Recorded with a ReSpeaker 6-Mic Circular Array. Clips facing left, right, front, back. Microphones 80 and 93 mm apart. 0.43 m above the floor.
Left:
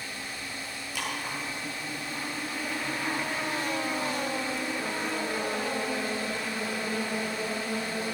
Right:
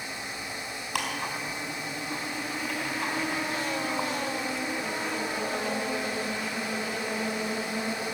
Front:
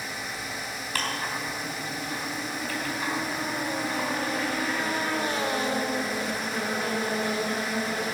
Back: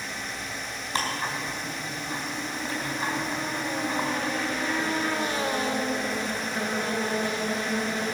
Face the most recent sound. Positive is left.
turn(degrees=-110)